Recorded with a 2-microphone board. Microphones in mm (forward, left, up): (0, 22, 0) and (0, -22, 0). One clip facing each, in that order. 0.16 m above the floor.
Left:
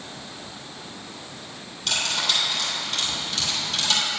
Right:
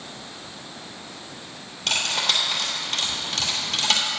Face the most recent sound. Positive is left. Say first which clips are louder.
# right 1 dB
turn(degrees=-45)  # may be behind; listen again after turning